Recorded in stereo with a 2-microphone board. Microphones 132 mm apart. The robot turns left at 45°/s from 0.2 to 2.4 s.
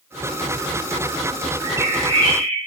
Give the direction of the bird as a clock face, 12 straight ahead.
1 o'clock.